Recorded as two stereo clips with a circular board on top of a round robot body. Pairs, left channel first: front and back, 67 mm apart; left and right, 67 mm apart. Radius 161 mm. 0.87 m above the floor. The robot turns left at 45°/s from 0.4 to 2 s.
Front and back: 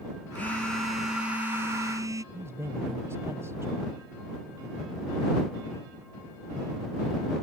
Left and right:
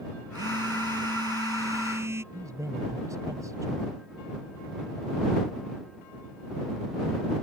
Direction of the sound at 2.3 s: 130° right.